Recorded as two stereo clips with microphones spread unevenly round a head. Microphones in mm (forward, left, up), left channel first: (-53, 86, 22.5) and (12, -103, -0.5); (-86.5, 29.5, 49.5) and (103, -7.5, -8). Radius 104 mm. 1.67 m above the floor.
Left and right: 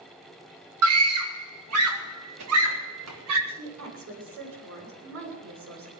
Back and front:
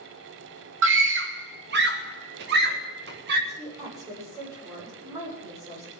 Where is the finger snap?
No finger snap in this recording.